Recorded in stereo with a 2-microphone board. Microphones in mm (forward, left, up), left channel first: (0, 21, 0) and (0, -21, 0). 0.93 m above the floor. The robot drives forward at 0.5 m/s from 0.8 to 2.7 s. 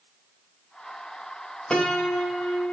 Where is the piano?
15° left (ahead or behind), 0.8 m; by 2.7 s 10° left (ahead or behind), 1.2 m.